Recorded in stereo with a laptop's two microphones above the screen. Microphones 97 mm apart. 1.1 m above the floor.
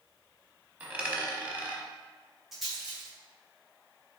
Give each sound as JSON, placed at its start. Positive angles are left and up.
{"t": 0.8, "sound": "a dropped coin", "side_deg": -20, "distance_m": 0.9}
{"t": 2.5, "sound": "a rattle", "side_deg": -5, "distance_m": 0.9}